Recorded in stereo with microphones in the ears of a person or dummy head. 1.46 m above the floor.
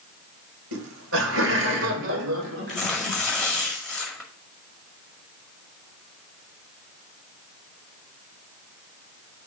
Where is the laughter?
75° right (ahead or behind), 1.0 m; by 3.2 s 70° right (ahead or behind), 2.5 m.